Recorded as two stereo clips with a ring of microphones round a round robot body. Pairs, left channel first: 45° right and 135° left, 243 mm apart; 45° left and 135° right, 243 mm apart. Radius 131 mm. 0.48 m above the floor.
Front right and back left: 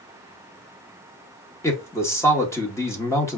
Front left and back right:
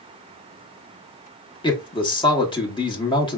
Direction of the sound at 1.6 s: 15° left.